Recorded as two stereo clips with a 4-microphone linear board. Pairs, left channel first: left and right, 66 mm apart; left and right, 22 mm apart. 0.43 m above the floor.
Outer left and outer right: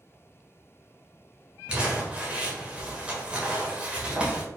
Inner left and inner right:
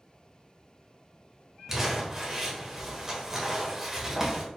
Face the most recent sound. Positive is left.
turn(degrees=-15)  # may be behind; listen again after turning